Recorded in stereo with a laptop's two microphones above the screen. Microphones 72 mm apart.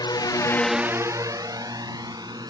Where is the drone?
85° left; by 2.5 s 65° right (ahead or behind).